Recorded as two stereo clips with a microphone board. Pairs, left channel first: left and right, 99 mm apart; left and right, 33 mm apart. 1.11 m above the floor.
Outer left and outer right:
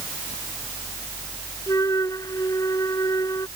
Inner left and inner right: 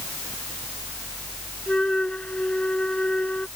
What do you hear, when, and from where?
1.7 s a flute: 35° left (ahead or behind)